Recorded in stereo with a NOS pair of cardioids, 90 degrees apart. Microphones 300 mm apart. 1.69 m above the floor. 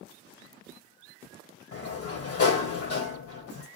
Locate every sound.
1.7 s a sliding door: 50° left, 1.6 m